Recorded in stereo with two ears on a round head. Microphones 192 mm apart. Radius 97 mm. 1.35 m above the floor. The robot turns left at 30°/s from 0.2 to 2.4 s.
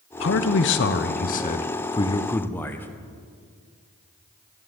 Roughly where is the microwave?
No microwave in this recording.